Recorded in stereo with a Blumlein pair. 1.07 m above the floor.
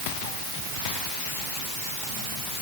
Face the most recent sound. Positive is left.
No sound to turn to.